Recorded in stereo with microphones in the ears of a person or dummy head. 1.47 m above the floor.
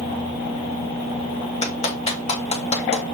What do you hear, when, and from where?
1.6 s a clap: 30° left (ahead or behind), 2.0 m